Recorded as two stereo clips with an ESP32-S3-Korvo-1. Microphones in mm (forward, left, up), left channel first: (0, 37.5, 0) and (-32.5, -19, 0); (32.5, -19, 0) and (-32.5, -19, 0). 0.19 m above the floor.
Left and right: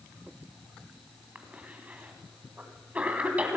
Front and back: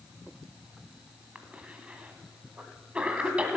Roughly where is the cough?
Behind right.